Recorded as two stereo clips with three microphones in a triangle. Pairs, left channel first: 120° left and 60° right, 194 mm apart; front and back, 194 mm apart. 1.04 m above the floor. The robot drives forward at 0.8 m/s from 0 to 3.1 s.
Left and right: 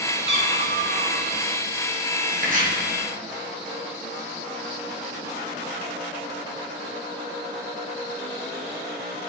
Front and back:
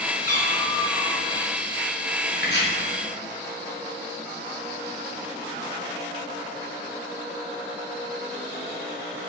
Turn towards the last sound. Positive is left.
turn(degrees=-25)